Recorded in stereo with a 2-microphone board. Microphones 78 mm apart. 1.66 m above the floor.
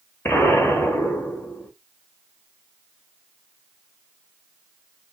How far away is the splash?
I don't hear a splash.